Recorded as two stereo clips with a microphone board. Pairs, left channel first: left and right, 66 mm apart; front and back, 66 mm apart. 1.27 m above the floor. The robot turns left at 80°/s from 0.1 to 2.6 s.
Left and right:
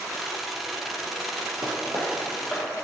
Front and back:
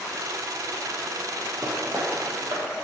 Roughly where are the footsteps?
Behind right.